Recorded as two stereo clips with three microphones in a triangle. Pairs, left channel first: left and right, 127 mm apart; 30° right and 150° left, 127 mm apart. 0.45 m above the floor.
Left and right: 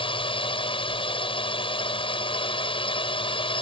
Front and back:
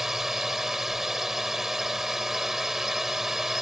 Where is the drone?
65° left.